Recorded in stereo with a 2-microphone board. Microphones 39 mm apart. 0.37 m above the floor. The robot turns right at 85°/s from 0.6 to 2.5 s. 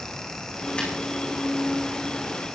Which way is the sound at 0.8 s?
35° left (ahead or behind).